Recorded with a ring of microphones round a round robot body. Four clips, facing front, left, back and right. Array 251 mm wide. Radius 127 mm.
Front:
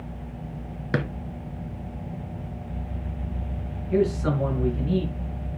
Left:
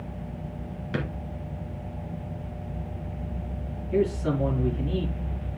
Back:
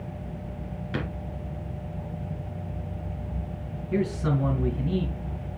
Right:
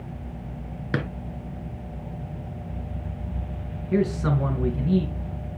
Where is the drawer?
45° right, 1.8 m.